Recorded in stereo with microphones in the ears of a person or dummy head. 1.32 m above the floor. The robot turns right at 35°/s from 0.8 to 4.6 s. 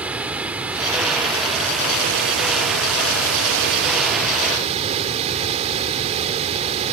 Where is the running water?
170° right; by 6.9 s 35° right.